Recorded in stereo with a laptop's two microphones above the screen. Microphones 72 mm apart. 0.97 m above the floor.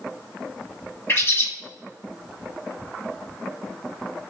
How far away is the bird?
About 1.2 m.